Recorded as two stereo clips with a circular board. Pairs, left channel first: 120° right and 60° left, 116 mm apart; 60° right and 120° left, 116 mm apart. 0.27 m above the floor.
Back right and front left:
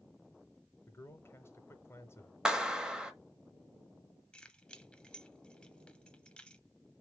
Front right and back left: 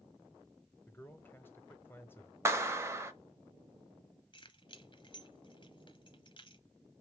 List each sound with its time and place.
0.9 s a man speaking: 100° right, 0.9 m
2.5 s a clap: 135° left, 0.8 m
4.3 s keys jangling: 40° right, 0.8 m